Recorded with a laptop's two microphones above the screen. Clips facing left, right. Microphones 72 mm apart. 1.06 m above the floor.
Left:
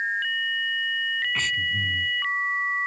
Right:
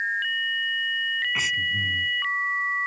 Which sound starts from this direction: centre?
Breathing, at 1.4 s.